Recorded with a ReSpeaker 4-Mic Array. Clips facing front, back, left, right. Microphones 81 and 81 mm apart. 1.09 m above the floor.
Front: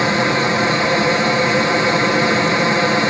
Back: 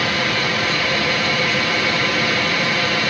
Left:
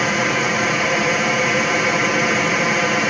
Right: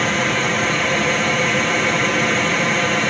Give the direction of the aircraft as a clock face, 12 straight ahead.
12 o'clock.